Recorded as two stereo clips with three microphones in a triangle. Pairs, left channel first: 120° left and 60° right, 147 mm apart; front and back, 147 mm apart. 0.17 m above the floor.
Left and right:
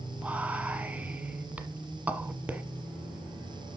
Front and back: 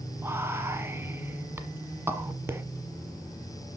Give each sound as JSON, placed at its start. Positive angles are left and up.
{"t": 0.2, "sound": "whispering", "azimuth_deg": -125, "distance_m": 1.1}